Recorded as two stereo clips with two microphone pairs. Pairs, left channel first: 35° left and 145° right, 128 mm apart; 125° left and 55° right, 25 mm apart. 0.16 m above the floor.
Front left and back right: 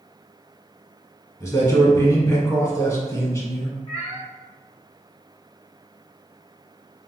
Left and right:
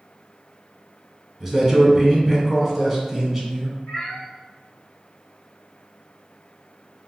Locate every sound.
1.4 s a man speaking: 20° left, 1.0 m
3.9 s a cat meowing: 90° left, 1.7 m